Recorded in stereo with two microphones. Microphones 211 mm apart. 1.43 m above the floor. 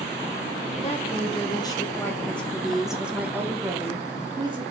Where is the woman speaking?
30° left (ahead or behind), 1.7 m; by 4.6 s 20° right (ahead or behind), 2.5 m.